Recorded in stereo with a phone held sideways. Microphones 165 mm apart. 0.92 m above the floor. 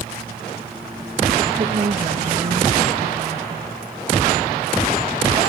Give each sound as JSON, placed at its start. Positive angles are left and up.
{"t": 1.6, "sound": "a woman speaking", "side_deg": -55}